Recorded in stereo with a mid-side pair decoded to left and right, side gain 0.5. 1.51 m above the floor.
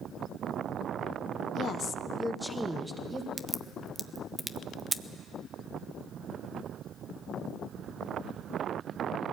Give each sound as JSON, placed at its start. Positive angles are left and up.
{"t": 1.6, "sound": "a woman speaking", "azimuth_deg": 65, "distance_m": 1.1}
{"t": 3.4, "sound": "a crack", "azimuth_deg": -20, "distance_m": 0.8}